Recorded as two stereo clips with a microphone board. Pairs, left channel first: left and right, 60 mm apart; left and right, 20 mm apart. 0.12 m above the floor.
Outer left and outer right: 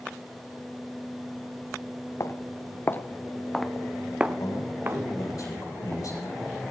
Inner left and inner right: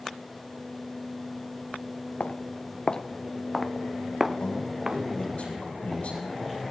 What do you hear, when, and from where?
2.2 s footsteps: 60° left (ahead or behind), 1.0 m; by 5.0 s 40° right (ahead or behind), 1.1 m
4.4 s a man speaking: 75° left (ahead or behind), 7.5 m